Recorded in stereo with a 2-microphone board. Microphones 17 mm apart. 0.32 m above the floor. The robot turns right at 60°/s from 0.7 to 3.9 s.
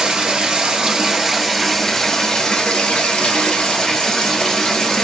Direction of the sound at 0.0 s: 50° right.